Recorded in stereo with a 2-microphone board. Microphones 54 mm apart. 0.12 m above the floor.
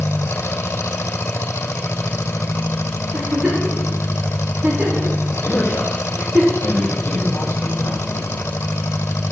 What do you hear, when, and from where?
0.0 s an engine running: 55° left (ahead or behind), 1.6 m
3.1 s a giggle: 20° right (ahead or behind), 5.5 m
5.4 s a man speaking: 50° left (ahead or behind), 5 m